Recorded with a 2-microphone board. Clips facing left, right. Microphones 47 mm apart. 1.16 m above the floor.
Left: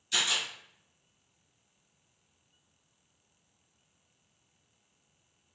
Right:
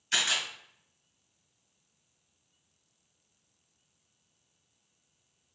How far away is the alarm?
I don't hear an alarm.